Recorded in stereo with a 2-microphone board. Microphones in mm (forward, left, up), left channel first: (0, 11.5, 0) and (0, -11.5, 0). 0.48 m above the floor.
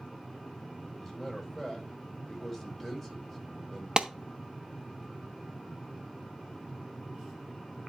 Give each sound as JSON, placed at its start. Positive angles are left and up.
{"t": 1.0, "sound": "a man speaking", "side_deg": 5, "distance_m": 2.5}
{"t": 4.0, "sound": "a clap", "side_deg": -35, "distance_m": 0.7}